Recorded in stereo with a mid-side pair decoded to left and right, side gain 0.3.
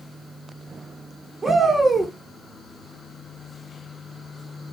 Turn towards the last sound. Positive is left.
turn(degrees=-50)